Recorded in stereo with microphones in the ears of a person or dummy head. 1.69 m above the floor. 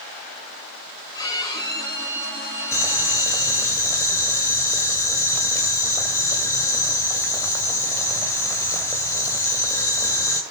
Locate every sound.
1.1 s a violin: 25° left (ahead or behind), 5.5 m
2.7 s boiling: 15° left (ahead or behind), 2 m